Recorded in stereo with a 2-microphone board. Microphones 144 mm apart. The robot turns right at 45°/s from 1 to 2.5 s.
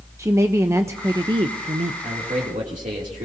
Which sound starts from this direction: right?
A man speaking, at 2.0 s.